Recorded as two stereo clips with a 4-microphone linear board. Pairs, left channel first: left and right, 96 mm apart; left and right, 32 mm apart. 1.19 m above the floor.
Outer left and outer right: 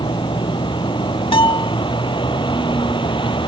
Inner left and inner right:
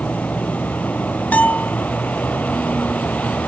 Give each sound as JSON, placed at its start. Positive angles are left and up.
{"t": 0.0, "sound": "a vehicle", "side_deg": 55}
{"t": 1.3, "sound": "a bell", "side_deg": 60}